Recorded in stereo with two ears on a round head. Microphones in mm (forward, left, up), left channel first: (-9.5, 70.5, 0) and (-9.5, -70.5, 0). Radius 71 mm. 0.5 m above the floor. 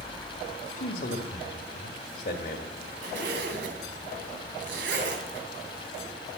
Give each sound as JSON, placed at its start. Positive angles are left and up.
{"t": 0.8, "sound": "a man speaking", "side_deg": 60, "distance_m": 1.6}
{"t": 3.0, "sound": "a zipper", "side_deg": -70, "distance_m": 3.0}